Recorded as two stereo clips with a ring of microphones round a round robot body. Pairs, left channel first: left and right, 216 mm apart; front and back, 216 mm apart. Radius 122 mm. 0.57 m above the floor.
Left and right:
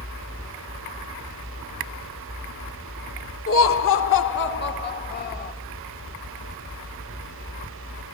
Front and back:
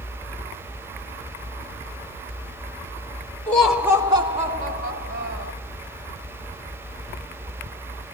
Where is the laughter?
85° left, 1.5 m; by 5.5 s 135° left, 3 m.